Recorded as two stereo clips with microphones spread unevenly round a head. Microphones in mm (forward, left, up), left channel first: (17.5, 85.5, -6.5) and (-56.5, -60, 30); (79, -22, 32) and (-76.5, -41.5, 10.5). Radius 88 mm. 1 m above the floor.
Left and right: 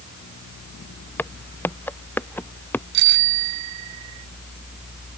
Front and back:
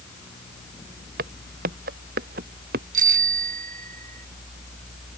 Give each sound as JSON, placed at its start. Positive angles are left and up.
{"t": 1.2, "sound": "footsteps", "azimuth_deg": 145}
{"t": 2.9, "sound": "a bicycle bell", "azimuth_deg": -130}